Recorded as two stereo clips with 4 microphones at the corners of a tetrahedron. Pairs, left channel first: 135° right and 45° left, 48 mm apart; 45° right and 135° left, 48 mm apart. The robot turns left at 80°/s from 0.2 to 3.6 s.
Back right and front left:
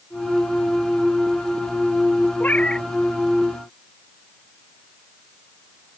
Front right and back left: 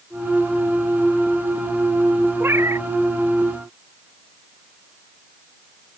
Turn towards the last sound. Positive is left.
turn(degrees=80)